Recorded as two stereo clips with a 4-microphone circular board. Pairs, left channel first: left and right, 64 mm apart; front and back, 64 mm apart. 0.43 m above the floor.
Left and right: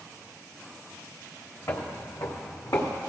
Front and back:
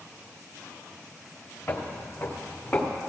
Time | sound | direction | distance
1.7 | footsteps | 60° left | 1.9 m